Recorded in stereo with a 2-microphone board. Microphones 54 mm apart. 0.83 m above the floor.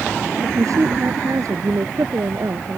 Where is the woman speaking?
80° right.